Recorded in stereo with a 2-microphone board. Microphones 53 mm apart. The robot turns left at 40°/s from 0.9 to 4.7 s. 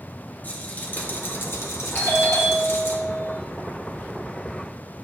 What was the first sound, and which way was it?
A rattle, 140° left.